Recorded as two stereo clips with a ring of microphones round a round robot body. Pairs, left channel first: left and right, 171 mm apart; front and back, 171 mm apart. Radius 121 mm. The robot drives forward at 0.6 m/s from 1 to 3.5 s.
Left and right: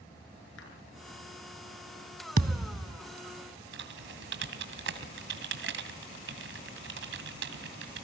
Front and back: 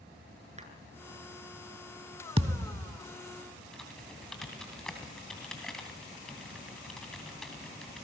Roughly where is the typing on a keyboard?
Right.